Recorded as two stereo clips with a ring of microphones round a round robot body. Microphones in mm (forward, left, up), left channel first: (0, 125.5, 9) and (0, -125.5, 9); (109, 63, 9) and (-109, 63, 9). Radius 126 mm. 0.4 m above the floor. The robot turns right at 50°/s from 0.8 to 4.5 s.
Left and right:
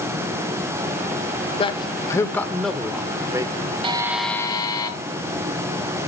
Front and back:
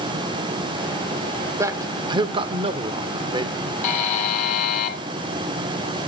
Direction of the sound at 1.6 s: 120° left.